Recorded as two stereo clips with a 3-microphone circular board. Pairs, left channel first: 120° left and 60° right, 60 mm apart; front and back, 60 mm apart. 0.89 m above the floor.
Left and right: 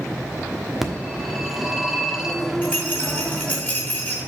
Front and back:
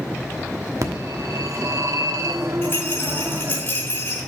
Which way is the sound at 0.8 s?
145° right.